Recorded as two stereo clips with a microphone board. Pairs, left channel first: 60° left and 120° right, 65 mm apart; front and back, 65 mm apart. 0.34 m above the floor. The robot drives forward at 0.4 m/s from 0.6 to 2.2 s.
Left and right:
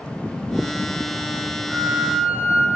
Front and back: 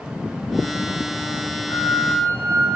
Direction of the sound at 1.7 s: 45° right.